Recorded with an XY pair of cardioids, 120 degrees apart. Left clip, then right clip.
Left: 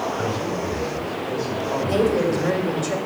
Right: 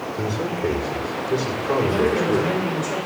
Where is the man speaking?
60° right, 4 m.